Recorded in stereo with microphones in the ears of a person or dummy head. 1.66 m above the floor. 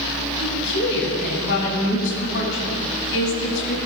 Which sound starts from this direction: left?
A woman speaking, at 0.4 s.